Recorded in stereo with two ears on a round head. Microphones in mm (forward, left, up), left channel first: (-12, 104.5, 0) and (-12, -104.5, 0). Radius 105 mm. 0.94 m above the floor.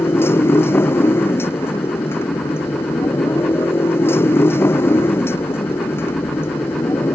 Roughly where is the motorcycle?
Centre.